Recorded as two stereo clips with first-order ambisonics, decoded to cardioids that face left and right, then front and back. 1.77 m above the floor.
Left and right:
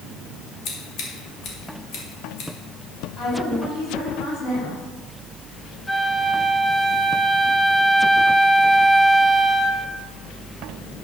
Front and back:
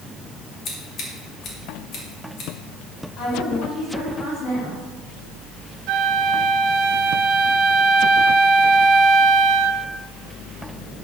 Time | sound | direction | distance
0.7 | scissors | 50° left | 2.5 m
3.2 | a woman speaking | 35° left | 5 m
5.9 | a flute | 170° left | 0.7 m